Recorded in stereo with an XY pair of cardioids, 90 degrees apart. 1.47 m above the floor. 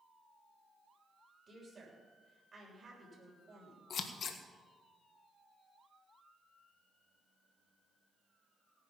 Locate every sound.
1.5 s a woman speaking: 35° right, 7 m
3.9 s scissors: 60° left, 1.6 m